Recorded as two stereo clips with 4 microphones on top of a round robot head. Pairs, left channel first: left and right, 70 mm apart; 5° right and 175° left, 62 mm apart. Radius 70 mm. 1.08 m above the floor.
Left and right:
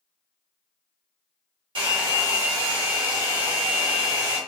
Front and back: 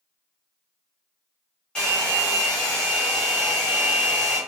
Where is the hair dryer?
80° right, 1.1 m.